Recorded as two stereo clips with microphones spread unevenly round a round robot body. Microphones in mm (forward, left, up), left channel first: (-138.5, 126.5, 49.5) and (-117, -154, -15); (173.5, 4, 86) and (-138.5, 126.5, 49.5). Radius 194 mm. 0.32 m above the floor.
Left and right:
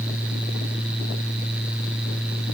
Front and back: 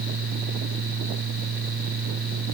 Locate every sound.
Only background noise.